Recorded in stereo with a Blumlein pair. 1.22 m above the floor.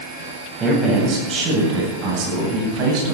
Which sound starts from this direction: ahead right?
A man speaking, at 0.6 s.